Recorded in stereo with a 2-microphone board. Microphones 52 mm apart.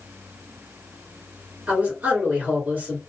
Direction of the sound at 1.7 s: 30° right (ahead or behind).